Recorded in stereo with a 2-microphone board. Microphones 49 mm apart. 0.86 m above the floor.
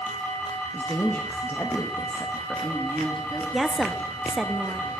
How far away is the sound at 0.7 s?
About 1.1 m.